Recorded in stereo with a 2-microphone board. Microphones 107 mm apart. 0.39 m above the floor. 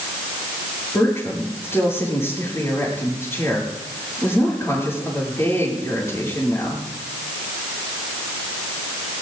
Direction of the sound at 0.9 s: 25° left (ahead or behind).